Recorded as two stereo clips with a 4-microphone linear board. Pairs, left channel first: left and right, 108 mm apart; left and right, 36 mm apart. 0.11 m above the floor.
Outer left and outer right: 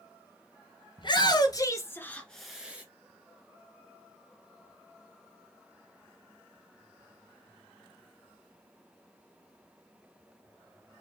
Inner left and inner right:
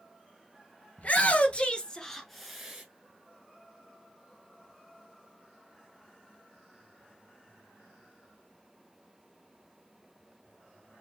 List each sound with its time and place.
1.0 s a shout: 45° left (ahead or behind), 1.5 m; by 2.8 s 15° right (ahead or behind), 1.2 m